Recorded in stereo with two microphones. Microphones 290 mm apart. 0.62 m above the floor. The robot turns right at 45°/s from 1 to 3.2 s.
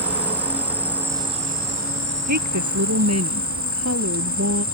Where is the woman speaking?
100° right; by 4.7 s 60° right.